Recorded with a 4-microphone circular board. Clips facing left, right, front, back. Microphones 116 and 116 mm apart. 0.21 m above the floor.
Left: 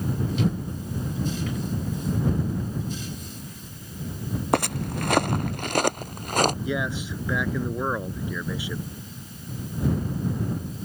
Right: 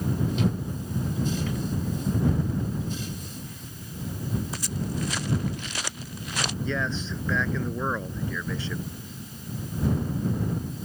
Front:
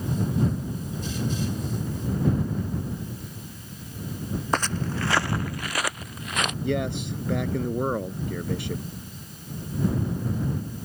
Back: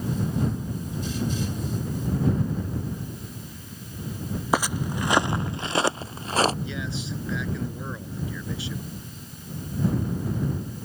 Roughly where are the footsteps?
Left.